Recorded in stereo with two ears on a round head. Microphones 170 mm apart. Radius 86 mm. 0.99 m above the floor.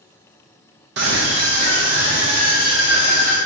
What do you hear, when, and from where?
1.0 s a scream: 60° right (ahead or behind), 0.5 m; by 3.4 s 50° right (ahead or behind), 2.0 m